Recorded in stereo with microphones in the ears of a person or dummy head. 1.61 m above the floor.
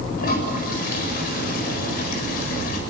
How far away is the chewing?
I don't hear chewing.